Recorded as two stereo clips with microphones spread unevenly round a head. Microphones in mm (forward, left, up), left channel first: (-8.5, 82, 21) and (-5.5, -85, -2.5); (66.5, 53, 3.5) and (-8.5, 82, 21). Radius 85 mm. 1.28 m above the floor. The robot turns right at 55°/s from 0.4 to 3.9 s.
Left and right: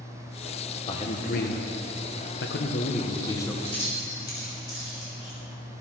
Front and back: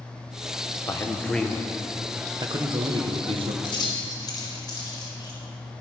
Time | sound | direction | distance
0.9 | a man speaking | 25° left | 1.1 m
3.6 | keys jangling | 5° left | 4.5 m